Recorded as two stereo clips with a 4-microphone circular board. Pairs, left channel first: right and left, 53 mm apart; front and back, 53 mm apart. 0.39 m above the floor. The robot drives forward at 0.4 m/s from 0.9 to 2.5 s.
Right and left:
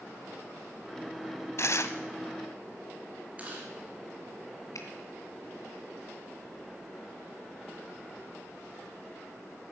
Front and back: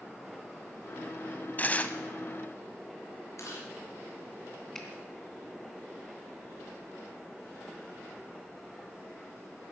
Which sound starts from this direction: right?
A finger snap, at 4.8 s.